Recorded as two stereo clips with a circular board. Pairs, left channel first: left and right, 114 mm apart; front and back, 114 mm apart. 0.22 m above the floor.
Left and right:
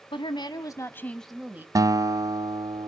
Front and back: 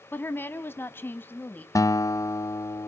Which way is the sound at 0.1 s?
70° left.